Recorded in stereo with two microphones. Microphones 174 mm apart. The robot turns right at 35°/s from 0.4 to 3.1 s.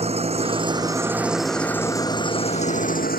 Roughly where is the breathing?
No breathing in this recording.